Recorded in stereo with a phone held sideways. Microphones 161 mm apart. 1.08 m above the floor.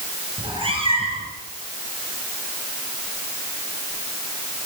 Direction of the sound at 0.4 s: 35° right (ahead or behind).